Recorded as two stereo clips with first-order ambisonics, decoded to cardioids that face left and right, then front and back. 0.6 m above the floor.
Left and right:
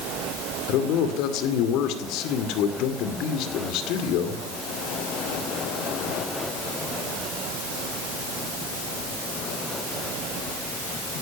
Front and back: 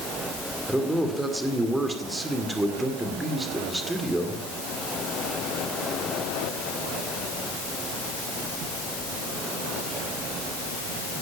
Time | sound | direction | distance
0.7 | a man speaking | 100° left | 2 m